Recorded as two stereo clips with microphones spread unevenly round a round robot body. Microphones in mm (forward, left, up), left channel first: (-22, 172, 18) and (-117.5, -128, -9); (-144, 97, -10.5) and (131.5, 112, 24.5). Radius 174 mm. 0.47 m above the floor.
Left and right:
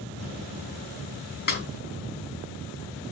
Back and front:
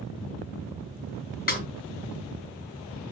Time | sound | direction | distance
1.5 | a snare drum | 130° left | 4 m